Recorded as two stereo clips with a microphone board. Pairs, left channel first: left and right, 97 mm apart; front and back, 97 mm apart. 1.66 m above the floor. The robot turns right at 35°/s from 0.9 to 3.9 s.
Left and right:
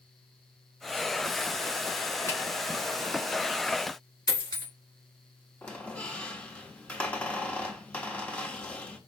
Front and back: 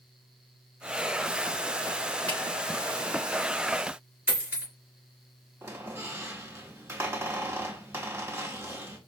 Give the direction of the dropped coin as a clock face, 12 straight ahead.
8 o'clock.